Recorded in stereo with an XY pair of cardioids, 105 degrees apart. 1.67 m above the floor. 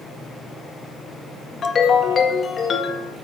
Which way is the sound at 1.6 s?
40° left.